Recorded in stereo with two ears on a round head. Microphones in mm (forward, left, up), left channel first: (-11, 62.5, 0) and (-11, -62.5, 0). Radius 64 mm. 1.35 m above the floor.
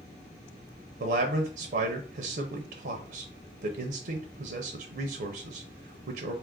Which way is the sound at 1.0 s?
75° right (ahead or behind).